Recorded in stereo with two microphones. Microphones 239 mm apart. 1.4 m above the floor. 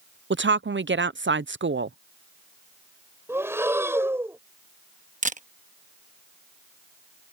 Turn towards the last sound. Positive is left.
turn(degrees=-35)  # may be behind; listen again after turning